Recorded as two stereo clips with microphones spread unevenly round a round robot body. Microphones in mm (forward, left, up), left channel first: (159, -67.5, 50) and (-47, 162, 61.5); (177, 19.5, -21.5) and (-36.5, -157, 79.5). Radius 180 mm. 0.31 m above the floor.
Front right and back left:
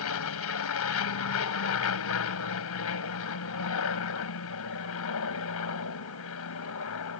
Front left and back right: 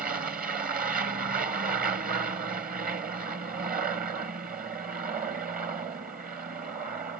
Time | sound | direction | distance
0.0 | an aircraft | 70° right | ?